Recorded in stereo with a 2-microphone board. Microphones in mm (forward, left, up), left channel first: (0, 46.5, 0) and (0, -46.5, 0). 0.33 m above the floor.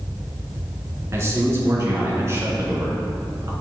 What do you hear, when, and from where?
1.1 s a man speaking: 30° right (ahead or behind), 3.5 m